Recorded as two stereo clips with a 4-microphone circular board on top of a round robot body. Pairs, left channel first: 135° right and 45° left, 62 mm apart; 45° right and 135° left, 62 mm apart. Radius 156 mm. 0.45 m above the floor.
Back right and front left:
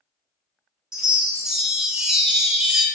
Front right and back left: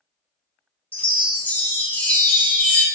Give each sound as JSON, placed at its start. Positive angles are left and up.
{"t": 0.9, "sound": "a chime", "azimuth_deg": -20, "distance_m": 1.0}